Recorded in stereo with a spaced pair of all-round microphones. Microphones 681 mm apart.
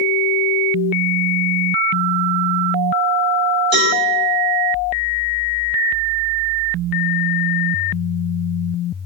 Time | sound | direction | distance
3.7 | a cowbell | 35° right (ahead or behind) | 1.1 m